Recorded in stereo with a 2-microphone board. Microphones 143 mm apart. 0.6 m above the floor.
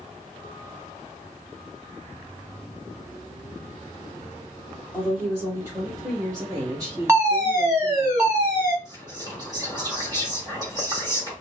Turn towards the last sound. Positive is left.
turn(degrees=-30)  # may be behind; listen again after turning